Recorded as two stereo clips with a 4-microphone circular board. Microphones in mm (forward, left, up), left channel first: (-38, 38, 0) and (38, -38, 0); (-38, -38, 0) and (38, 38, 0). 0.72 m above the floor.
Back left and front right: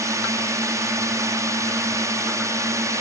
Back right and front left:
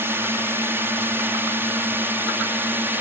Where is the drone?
10° right.